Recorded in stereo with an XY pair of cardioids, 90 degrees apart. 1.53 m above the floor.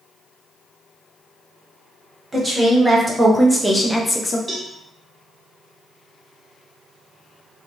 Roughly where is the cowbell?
Ahead.